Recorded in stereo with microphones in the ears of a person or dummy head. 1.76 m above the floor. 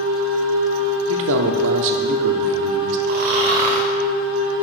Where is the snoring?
45° right (ahead or behind), 0.7 m.